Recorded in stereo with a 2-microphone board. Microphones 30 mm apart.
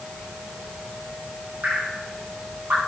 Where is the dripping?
65° right (ahead or behind), 6 m.